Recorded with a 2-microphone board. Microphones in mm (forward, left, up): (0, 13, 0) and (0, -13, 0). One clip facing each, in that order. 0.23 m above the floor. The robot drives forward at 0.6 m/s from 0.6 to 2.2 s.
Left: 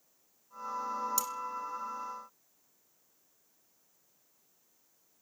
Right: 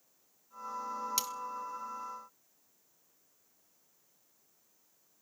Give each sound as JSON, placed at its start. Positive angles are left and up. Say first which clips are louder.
{"t": 1.2, "sound": "cutlery clinking", "louder": "left 1 dB", "side_deg": -45, "distance_m": 1.3}